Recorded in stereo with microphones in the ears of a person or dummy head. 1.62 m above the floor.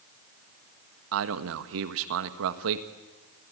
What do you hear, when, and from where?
1.1 s a man speaking: 65° right (ahead or behind), 1.6 m